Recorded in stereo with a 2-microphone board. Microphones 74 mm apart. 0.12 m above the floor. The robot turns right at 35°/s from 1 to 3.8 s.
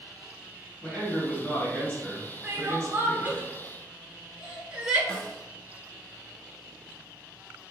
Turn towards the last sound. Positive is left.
turn(degrees=15)  # may be behind; listen again after turning